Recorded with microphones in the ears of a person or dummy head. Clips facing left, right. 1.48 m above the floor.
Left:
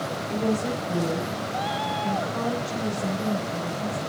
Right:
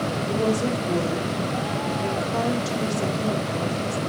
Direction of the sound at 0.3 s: 75° right (ahead or behind).